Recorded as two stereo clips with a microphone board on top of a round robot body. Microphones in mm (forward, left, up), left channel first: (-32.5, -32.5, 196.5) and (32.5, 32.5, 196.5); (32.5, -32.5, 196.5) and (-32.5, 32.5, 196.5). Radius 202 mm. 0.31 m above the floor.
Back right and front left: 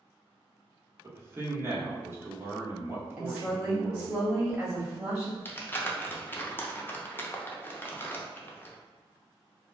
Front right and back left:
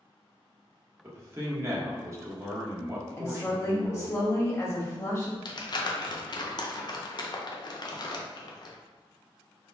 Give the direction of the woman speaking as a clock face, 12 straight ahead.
1 o'clock.